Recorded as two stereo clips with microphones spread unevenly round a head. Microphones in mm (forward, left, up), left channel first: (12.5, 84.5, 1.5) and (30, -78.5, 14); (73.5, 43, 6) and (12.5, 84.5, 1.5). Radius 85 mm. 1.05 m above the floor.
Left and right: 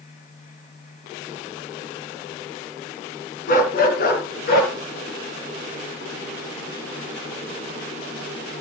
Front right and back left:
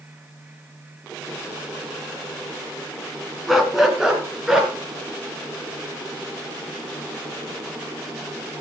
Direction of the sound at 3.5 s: 55° left.